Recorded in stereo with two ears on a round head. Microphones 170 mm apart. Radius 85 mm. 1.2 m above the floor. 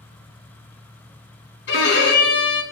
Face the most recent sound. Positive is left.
turn(degrees=60)  # may be behind; listen again after turning